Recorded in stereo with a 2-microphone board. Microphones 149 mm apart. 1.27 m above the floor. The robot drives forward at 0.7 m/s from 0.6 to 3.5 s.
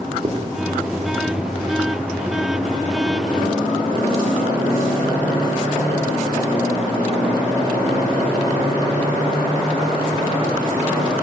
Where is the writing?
45° right (ahead or behind), 3.5 m.